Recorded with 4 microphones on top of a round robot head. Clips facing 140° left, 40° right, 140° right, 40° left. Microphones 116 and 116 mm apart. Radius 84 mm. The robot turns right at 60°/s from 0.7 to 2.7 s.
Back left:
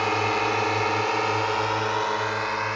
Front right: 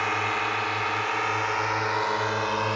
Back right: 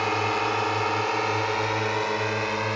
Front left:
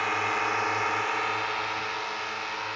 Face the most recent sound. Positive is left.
turn(degrees=-110)